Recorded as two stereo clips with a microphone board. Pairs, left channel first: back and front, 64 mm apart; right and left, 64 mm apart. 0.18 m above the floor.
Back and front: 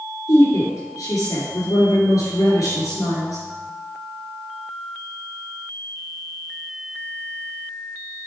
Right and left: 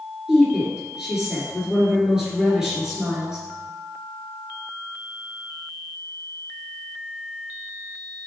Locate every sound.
0.3 s a woman speaking: 170° left, 3 m